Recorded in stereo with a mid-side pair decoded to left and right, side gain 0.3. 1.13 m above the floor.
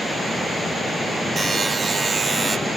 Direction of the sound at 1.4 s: 60° right.